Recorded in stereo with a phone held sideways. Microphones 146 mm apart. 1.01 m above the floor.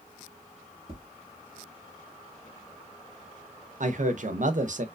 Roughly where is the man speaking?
Right.